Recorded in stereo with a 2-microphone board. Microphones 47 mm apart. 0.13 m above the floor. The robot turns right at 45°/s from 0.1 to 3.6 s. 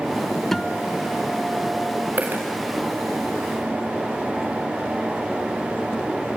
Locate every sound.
0.5 s a guitar: 5° left (ahead or behind), 0.6 m; by 2.1 s 20° right (ahead or behind), 0.6 m
2.2 s a dropped coin: 40° right (ahead or behind), 4.5 m; by 2.4 s 50° right (ahead or behind), 4.5 m